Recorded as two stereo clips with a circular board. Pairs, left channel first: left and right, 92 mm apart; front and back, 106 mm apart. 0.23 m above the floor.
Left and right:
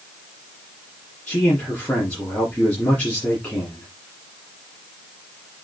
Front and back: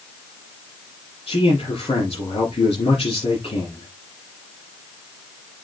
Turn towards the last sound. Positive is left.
turn(degrees=20)